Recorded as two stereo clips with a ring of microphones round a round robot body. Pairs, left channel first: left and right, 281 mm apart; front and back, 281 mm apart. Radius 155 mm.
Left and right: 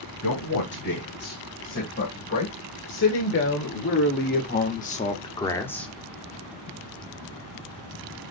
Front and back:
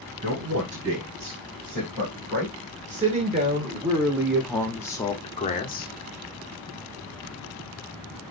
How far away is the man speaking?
About 3.5 m.